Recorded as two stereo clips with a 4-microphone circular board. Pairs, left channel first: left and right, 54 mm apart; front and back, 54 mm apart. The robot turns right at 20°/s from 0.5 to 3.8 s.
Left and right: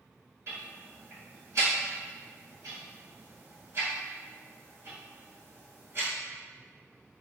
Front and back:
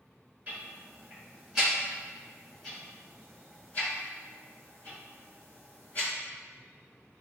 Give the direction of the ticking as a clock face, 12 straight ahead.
4 o'clock.